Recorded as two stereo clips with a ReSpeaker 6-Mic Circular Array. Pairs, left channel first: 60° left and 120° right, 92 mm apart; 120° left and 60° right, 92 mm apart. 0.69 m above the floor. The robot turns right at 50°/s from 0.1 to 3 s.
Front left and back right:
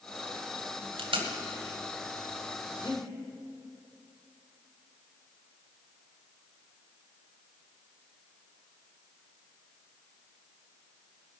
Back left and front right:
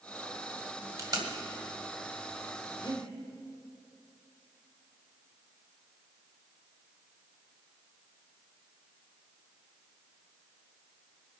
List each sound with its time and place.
1.0 s tape being pulled: 110° right, 1.8 m; by 1.3 s 95° right, 1.8 m
2.8 s breathing: 80° left, 2.5 m; by 3.0 s 90° left, 2.5 m